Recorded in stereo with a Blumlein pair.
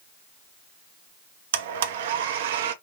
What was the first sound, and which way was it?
A blender, 55° right.